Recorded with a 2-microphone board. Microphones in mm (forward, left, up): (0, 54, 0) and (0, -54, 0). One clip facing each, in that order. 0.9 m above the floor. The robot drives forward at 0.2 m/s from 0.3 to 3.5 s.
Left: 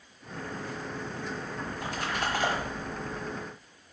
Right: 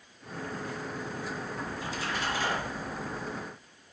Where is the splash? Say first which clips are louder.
Left 1 dB; 60° left (ahead or behind), 1.1 m; by 3.2 s 50° left (ahead or behind), 1.2 m.